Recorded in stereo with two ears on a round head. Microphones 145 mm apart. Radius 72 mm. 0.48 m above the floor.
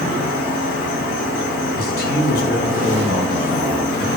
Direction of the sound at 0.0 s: 55° left (ahead or behind).